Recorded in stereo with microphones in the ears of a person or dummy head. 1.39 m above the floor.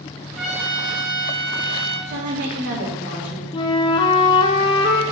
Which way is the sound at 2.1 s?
60° right (ahead or behind).